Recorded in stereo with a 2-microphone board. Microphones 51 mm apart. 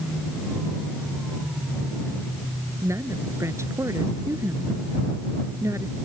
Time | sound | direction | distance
2.8 | a woman speaking | 75° right (ahead or behind) | ?